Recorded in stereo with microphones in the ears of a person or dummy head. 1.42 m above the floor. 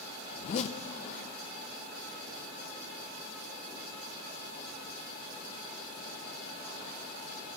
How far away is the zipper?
About 0.6 m.